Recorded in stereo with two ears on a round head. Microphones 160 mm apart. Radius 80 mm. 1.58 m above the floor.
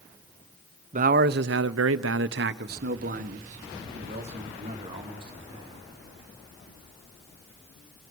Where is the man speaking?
45° right (ahead or behind), 0.8 m; by 5.8 s 30° right (ahead or behind), 3 m.